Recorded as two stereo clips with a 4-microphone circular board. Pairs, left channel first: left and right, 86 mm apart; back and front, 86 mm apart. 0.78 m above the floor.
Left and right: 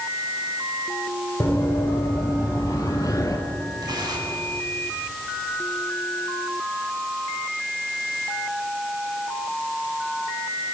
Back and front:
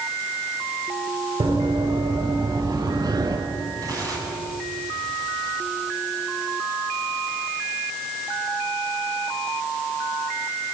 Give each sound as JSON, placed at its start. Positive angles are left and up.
{"t": 1.4, "sound": "running footsteps", "azimuth_deg": 25, "distance_m": 5.5}
{"t": 3.8, "sound": "tearing paper", "azimuth_deg": -50, "distance_m": 7.0}